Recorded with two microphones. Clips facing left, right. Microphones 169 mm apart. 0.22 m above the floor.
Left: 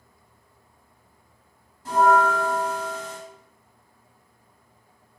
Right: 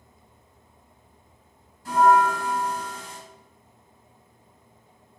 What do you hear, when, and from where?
1.9 s a bell: 25° left (ahead or behind), 1.8 m